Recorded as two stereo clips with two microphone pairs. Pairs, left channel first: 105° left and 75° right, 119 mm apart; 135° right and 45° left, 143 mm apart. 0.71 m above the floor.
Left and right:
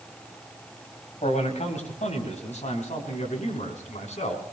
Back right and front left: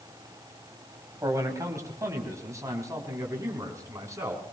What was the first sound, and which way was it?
A man speaking, 110° left.